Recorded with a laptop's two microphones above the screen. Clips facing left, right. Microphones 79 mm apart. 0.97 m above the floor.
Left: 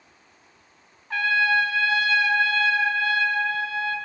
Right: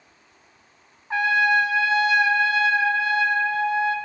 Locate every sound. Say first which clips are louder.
1.1 s a trumpet: right 2 dB; 20° right (ahead or behind), 0.8 m